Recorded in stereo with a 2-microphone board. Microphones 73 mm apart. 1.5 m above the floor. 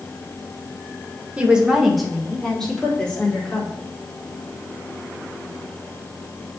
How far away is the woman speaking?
About 1.6 m.